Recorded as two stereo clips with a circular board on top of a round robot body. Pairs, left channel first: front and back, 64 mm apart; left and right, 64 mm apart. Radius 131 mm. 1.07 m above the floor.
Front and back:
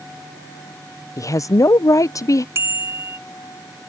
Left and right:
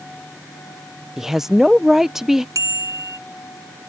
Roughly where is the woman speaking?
Ahead.